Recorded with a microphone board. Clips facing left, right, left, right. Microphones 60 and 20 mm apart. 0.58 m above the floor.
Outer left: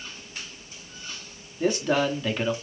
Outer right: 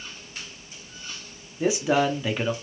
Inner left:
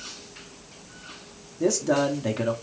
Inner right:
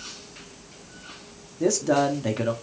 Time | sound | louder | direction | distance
1.6 | a man speaking | outer right 1 dB, inner right 1 dB | 10° right (ahead or behind) | 0.6 m